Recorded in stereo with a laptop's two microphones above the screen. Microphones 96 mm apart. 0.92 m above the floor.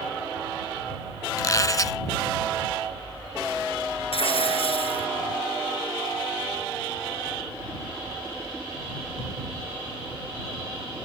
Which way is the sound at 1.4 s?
35° left (ahead or behind).